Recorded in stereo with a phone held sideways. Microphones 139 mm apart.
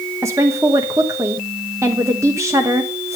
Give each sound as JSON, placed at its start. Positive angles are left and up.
{"t": 0.2, "sound": "a woman speaking", "side_deg": -20, "distance_m": 1.1}